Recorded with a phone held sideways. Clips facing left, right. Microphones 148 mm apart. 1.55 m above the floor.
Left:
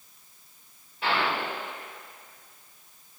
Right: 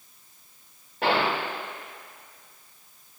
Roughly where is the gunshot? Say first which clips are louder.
Right 3 dB; right.